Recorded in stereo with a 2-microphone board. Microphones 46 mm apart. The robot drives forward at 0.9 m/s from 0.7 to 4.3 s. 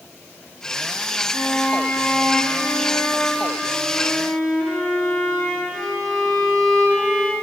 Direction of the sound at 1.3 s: 20° left (ahead or behind).